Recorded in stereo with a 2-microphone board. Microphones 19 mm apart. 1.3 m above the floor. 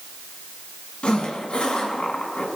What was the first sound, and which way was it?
A zipper, 65° left (ahead or behind).